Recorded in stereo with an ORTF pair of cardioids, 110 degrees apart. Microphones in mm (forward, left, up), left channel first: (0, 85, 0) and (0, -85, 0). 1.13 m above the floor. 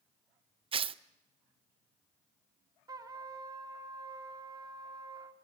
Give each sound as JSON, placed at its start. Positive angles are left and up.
{"t": 0.7, "sound": "tearing paper", "azimuth_deg": -30, "distance_m": 0.7}
{"t": 2.9, "sound": "a trumpet", "azimuth_deg": -20, "distance_m": 2.5}